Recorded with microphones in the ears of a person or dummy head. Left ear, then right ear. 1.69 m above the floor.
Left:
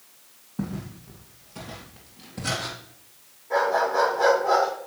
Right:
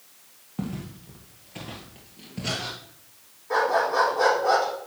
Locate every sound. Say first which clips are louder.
0.6 s footsteps: left 1 dB; 45° right (ahead or behind), 2.5 m; by 2.7 s 5° right (ahead or behind), 1.8 m
3.5 s a dog barking: even; 65° right (ahead or behind), 5 m